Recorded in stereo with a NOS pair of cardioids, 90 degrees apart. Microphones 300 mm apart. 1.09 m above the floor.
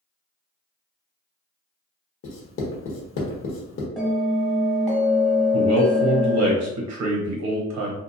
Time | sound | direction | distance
2.2 | writing | 45° left | 1.0 m
4.0 | a bell | straight ahead | 1.4 m
5.5 | a man speaking | 65° right | 0.8 m